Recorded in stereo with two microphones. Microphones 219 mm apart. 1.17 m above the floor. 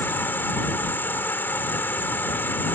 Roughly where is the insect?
Centre.